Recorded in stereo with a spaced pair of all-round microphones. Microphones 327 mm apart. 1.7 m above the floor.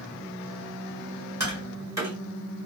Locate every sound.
1.4 s tapping: 10° right (ahead or behind), 2 m